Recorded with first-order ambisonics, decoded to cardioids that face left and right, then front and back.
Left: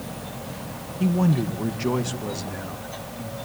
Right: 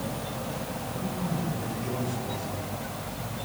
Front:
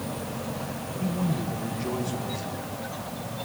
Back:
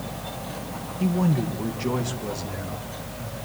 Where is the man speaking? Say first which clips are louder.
Left 12 dB, back 6 dB; 115° left, 1.3 m; by 3.4 s 110° left, 3.5 m.